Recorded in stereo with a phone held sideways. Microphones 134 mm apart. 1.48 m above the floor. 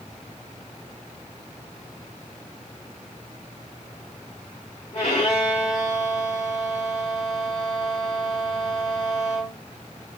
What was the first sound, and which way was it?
A violin, 50° left (ahead or behind).